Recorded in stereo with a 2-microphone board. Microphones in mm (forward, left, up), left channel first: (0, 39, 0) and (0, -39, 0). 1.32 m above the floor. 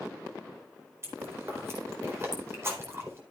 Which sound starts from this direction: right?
Chewing, at 1.0 s.